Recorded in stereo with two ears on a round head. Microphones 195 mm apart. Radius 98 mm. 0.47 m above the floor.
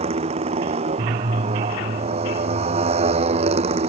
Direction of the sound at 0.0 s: 30° right (ahead or behind).